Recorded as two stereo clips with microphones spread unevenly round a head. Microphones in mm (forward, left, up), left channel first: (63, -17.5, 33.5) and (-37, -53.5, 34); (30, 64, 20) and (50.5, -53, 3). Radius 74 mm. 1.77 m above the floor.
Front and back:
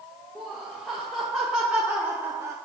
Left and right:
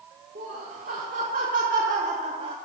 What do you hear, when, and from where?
0.3 s laughter: 70° right, 1.9 m; by 2.6 s 120° right, 0.6 m